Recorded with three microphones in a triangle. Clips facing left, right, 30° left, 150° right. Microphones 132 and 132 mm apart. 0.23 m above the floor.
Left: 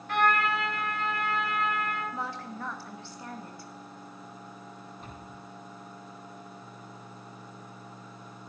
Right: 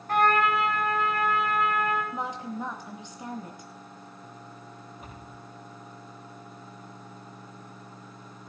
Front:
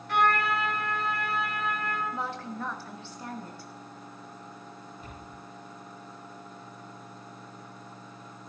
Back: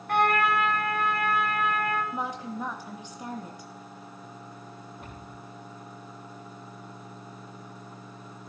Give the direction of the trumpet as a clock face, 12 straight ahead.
4 o'clock.